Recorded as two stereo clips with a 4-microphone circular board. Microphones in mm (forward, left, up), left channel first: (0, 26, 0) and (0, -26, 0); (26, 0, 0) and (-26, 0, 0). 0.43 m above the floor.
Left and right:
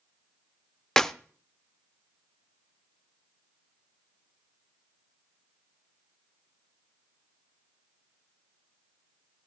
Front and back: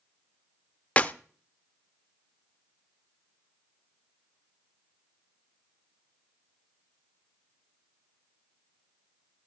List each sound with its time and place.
1.0 s a clap: 20° left, 0.7 m